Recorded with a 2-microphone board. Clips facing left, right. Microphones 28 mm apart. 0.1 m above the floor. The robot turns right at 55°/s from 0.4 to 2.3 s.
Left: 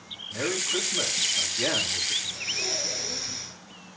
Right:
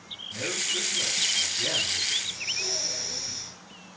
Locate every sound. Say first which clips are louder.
0.3 s a man speaking: left 2 dB; 30° left, 9.5 m; by 2.1 s 125° left, 9.5 m
2.2 s breathing: left 1 dB; 55° left (ahead or behind), 7.5 m; by 3.5 s 50° left (ahead or behind), 7.5 m